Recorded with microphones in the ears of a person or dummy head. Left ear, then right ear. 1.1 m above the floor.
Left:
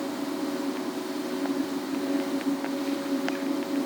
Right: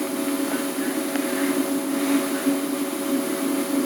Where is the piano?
I don't hear a piano.